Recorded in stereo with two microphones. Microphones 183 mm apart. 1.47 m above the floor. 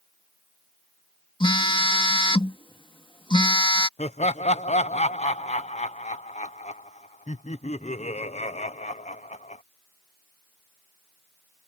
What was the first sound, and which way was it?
A phone buzzing, 25° left (ahead or behind).